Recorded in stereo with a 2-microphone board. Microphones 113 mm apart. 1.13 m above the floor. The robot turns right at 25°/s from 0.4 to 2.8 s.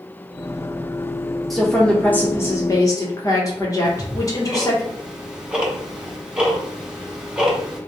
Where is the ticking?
10° right (ahead or behind), 0.7 m.